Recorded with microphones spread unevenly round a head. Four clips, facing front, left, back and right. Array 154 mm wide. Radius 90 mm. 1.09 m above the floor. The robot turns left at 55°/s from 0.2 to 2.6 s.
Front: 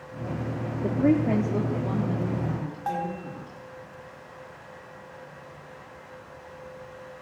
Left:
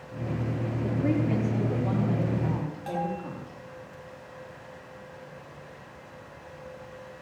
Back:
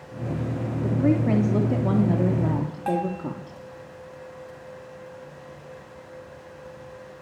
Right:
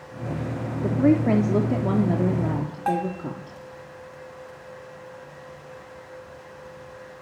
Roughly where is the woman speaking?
Ahead right.